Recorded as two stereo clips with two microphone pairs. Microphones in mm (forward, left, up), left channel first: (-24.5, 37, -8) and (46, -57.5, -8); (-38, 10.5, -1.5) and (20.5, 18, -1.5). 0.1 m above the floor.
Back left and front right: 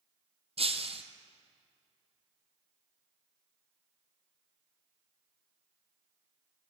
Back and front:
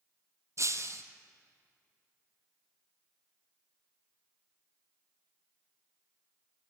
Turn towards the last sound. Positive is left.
turn(degrees=-25)